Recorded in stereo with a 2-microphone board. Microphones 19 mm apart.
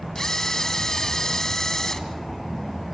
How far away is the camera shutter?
About 1.9 m.